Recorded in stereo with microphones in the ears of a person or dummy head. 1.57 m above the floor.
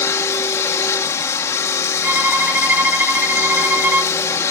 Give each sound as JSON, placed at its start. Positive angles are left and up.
{"t": 0.0, "sound": "a machine running", "side_deg": 15}
{"t": 2.0, "sound": "a violin", "side_deg": -10}